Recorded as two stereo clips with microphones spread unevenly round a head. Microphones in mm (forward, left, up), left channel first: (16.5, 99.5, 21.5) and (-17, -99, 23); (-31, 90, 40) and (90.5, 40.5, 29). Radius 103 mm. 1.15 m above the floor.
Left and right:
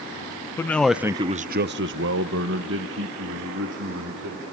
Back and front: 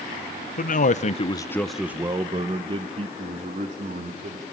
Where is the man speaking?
155° left, 1.1 m; by 4.4 s 65° right, 3.5 m.